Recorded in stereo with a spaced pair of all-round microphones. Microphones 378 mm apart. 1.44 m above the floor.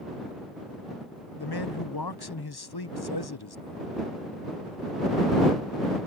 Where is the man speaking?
80° left.